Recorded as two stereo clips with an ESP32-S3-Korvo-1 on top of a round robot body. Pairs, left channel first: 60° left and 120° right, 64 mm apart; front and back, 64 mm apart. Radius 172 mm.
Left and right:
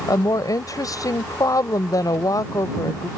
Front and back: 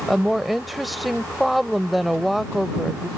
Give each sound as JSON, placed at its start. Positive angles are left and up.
{"t": 0.1, "sound": "a woman speaking", "azimuth_deg": 90}